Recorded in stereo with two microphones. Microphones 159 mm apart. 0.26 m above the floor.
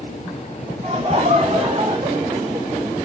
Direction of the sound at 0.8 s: 45° right (ahead or behind).